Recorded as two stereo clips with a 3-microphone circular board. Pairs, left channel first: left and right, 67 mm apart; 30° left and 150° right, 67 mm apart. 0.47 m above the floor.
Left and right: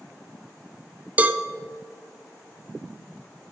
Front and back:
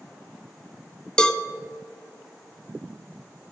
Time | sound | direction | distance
1.2 | a cowbell | 40° right | 0.7 m